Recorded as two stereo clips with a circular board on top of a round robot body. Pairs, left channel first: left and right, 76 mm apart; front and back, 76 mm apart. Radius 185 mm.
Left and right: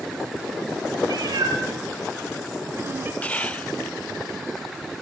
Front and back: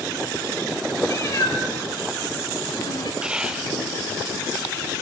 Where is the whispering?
120° left, 1.1 m.